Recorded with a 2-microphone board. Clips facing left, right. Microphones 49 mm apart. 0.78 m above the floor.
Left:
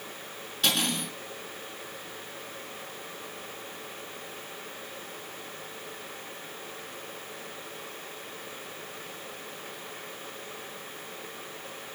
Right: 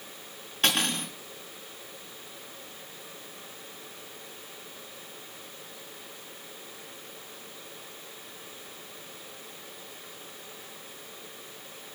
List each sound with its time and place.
0.6 s cutlery clinking: 40° right (ahead or behind), 5 m